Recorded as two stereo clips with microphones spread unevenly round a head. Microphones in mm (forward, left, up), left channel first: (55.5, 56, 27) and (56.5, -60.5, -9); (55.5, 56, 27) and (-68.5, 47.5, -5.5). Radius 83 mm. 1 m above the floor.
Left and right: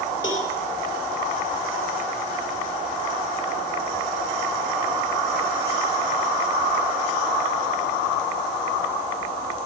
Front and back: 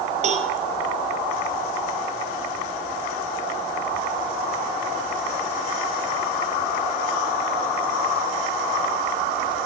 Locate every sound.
0.2 s a cowbell: 155° left, 5.5 m